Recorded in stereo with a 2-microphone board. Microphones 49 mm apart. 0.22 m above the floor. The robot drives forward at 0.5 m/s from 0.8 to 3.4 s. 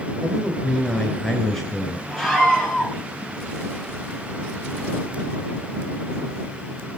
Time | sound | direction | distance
0.2 | a man speaking | 5° left (ahead or behind) | 4 m
2.1 | a scream | 10° right (ahead or behind) | 5 m